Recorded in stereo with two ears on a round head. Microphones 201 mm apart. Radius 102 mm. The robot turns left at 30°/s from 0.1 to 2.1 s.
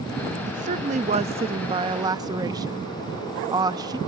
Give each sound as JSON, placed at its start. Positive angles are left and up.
{"t": 0.5, "sound": "a woman speaking", "azimuth_deg": -100, "distance_m": 0.6}